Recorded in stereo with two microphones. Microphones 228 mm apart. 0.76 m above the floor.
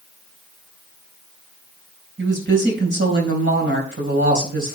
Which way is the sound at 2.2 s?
55° right (ahead or behind).